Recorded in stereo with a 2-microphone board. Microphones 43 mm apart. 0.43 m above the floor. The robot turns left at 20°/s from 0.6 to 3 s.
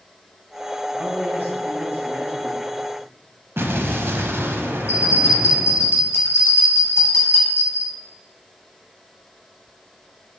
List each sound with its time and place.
0.9 s a man speaking: 150° left, 3 m; by 2.6 s 115° left, 3 m
3.6 s an explosion: 60° right (ahead or behind), 0.7 m
4.9 s a bell: 60° left (ahead or behind), 3 m